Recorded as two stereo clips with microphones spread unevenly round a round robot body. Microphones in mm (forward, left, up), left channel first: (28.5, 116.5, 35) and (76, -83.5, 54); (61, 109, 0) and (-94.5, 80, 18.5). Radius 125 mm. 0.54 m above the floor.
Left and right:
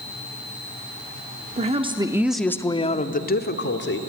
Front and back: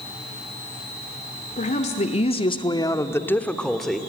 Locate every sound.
1.6 s a woman speaking: 25° right, 1.3 m; by 4.0 s 100° left, 1.7 m